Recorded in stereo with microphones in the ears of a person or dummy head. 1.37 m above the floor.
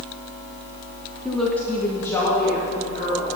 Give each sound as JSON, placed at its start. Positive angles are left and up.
{"t": 1.2, "sound": "a woman speaking", "side_deg": 0, "distance_m": 0.9}